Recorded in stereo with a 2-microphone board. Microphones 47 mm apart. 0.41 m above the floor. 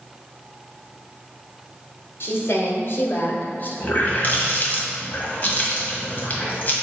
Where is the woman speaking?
60° left (ahead or behind), 1.8 m; by 3.7 s 40° left (ahead or behind), 1.4 m.